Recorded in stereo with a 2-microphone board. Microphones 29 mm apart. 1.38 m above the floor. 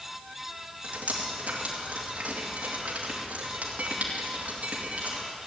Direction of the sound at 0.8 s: 60° right (ahead or behind).